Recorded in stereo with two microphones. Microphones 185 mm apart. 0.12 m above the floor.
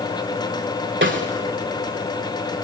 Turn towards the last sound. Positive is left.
turn(degrees=-85)